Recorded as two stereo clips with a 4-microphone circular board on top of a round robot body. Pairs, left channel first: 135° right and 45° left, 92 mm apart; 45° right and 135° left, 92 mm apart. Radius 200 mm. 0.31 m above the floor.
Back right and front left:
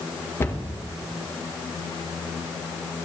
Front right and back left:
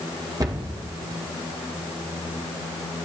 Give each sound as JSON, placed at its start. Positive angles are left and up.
{"t": 0.4, "sound": "a cupboard door", "azimuth_deg": 165, "distance_m": 1.8}